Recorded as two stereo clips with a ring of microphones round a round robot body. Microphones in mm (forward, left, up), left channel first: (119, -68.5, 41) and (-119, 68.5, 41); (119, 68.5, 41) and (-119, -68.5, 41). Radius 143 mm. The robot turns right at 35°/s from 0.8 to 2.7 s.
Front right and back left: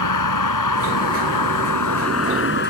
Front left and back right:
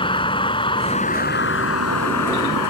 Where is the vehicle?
45° right; by 2.7 s 25° left.